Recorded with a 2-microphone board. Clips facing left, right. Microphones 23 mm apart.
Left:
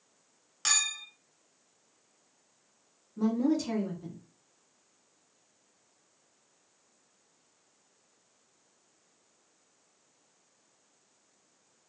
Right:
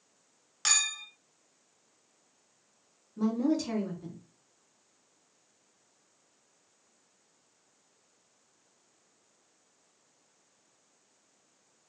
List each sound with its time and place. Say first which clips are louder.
0.7 s a clink: right 1 dB; 10° right (ahead or behind), 1.0 m
3.2 s a woman speaking: left 1 dB; 10° right (ahead or behind), 1.5 m